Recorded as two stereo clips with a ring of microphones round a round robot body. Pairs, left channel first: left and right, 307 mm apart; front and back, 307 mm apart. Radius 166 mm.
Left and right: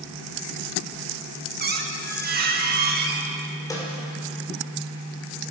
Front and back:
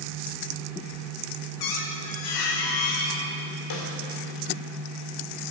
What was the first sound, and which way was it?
A squeak, 30° right.